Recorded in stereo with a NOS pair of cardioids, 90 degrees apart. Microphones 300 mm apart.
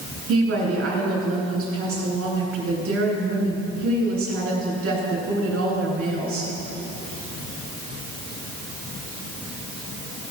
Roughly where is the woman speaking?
Ahead right.